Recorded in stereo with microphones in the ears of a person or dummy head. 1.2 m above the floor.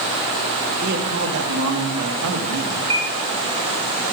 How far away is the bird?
About 1.2 m.